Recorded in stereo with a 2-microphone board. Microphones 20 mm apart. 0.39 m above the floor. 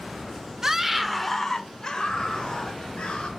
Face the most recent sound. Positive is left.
turn(degrees=60)  # may be behind; listen again after turning